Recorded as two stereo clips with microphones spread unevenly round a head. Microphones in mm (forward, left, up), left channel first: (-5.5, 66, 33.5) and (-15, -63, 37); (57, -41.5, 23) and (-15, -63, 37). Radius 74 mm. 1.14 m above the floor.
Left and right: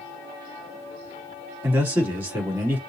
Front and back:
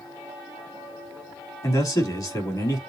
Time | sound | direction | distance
1.6 | a man speaking | 15° right | 3 m